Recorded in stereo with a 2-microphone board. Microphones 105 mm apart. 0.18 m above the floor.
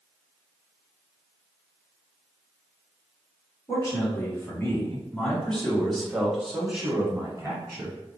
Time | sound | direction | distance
3.7 | a man speaking | 30° left (ahead or behind) | 1.9 m